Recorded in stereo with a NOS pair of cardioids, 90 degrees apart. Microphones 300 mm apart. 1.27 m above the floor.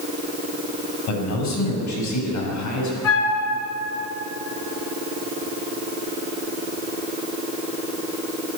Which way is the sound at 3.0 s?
70° left.